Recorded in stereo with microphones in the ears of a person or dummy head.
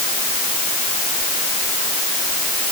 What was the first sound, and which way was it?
Only background noise.